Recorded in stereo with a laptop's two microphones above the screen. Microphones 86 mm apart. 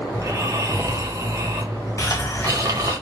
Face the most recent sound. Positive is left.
turn(degrees=40)  # may be behind; listen again after turning